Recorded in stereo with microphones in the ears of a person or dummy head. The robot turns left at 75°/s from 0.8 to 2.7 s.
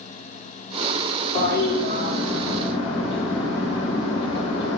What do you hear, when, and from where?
1.4 s a toilet flushing: 130° left, 2 m; by 4.8 s 30° left, 2 m